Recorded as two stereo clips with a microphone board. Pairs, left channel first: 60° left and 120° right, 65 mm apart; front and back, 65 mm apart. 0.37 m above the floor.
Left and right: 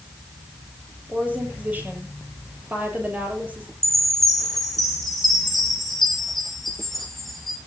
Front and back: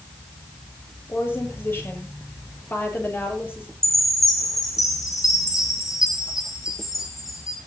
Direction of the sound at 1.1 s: 55° right.